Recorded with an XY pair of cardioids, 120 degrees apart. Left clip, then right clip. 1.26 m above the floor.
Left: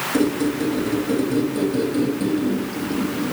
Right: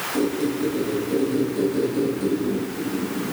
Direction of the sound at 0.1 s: 40° left.